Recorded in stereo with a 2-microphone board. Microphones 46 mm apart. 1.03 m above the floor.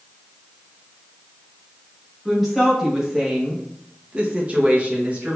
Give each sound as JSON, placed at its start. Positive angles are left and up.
{"t": 2.2, "sound": "a woman speaking", "side_deg": -5, "distance_m": 1.4}